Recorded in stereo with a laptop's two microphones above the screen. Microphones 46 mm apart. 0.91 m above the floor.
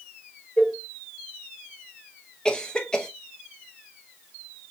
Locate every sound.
0.6 s a cowbell: 35° left (ahead or behind), 1.4 m
2.5 s a cough: 20° left (ahead or behind), 0.6 m